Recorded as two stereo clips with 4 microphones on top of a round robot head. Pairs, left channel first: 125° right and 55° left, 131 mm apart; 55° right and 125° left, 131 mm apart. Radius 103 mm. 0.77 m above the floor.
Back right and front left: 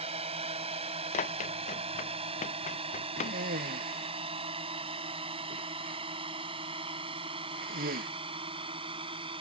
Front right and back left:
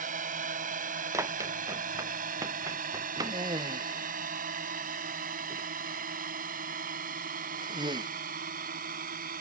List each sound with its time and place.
0.0 s a drone: 100° left; by 9.4 s 105° left
1.1 s running footsteps: 165° right; by 3.4 s 170° right
3.2 s a cough: 65° left